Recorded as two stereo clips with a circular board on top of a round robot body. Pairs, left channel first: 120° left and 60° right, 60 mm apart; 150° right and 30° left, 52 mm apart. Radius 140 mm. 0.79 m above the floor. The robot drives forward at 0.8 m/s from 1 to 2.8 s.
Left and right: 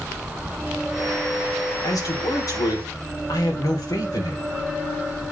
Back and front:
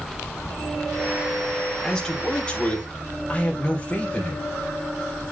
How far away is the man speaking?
About 2.5 m.